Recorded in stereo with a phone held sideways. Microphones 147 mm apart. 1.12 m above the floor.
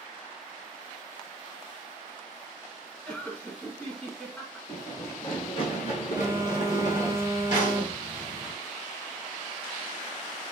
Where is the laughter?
5° left (ahead or behind), 1.4 m.